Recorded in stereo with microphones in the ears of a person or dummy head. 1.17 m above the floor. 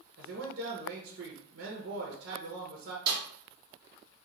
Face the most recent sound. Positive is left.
turn(degrees=-25)  # may be behind; listen again after turning